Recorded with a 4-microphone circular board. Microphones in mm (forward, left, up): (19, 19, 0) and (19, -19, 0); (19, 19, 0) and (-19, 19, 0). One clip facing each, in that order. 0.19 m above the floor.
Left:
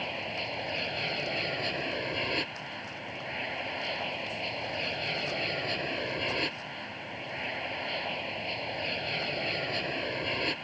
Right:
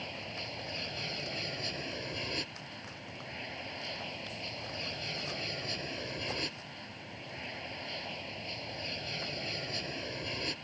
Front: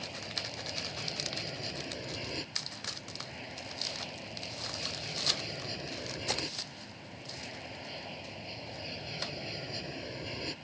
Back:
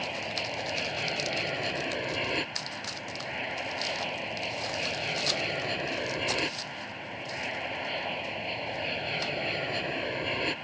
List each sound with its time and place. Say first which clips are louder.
0.0 s an aircraft: left 7 dB, back 8 dB; 145° left